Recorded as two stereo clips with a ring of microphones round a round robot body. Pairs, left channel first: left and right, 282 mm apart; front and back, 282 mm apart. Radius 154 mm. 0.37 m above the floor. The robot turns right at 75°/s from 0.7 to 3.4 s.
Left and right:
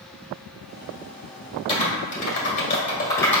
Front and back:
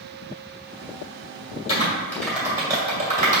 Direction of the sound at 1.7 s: 45° left.